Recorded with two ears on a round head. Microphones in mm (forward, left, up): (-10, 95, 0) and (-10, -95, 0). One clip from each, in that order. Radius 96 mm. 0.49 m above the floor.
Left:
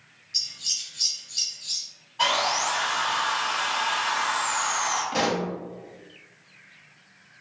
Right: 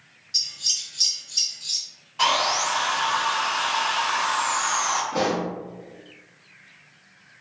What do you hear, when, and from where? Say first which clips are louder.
0.3 s scissors: right 3 dB; 20° right (ahead or behind), 0.9 m
2.2 s sawing: right 2 dB; 30° right (ahead or behind), 1.2 m
5.1 s a pop: right 1 dB; 45° left (ahead or behind), 0.6 m